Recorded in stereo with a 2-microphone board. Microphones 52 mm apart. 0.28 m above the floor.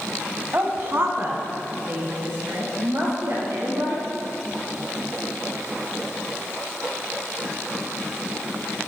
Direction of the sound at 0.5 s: 40° right (ahead or behind).